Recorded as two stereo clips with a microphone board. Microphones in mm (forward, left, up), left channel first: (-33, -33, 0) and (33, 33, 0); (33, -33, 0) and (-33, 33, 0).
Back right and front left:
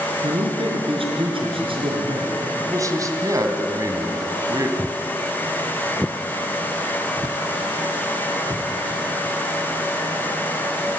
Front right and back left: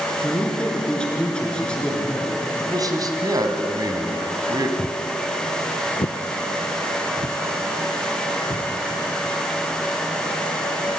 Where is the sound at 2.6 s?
95° left, 2 m.